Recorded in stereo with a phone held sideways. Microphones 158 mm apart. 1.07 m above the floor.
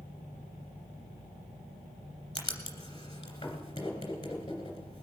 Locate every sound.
2.4 s writing: 30° left (ahead or behind), 2.5 m